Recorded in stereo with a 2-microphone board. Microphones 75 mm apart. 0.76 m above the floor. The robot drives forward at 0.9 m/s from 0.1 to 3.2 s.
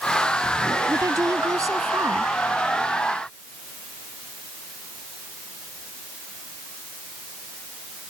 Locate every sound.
0.9 s a woman speaking: 50° right (ahead or behind); by 2.3 s 45° right (ahead or behind)